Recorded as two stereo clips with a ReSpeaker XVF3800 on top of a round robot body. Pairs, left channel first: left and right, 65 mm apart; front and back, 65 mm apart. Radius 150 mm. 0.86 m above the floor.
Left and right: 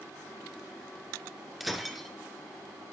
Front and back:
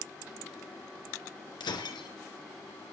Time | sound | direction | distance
1.6 | breaking glass | straight ahead | 2.5 m